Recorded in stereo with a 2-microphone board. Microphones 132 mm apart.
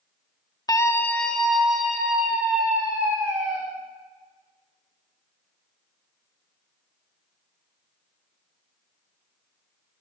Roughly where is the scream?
Left.